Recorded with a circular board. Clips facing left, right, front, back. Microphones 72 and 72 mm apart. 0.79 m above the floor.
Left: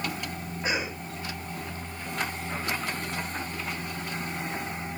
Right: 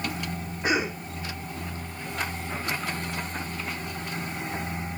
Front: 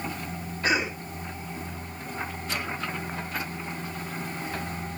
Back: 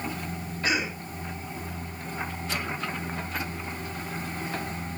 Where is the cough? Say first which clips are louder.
Right 5 dB, front 2 dB; 80° right, 2.5 m.